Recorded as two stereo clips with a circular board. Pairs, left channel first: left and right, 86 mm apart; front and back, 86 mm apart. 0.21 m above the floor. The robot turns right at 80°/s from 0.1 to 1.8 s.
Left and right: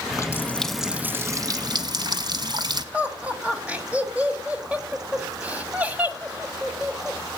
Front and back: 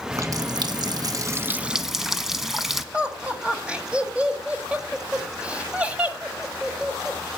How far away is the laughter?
About 1.5 m.